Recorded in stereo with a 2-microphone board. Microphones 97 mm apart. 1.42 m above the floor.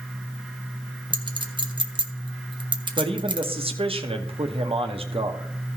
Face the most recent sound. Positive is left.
turn(degrees=-80)